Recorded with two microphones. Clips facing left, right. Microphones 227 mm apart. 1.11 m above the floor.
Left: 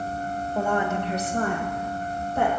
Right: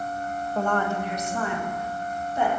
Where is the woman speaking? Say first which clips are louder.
Left 1 dB; centre (ahead or behind), 0.7 m; by 2.5 s 65° left (ahead or behind), 1.5 m.